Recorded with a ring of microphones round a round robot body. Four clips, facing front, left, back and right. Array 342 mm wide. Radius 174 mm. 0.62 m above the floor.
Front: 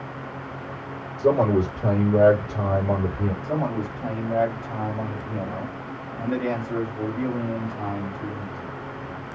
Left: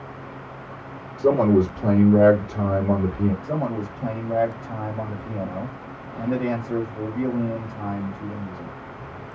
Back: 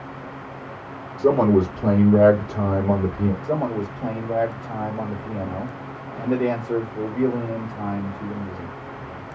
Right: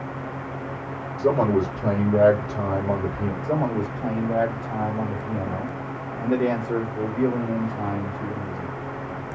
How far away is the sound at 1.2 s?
About 1.6 m.